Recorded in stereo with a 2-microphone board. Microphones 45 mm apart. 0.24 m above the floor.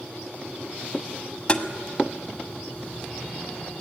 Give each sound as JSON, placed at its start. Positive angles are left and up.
{"t": 1.5, "sound": "tapping", "side_deg": 25, "distance_m": 1.1}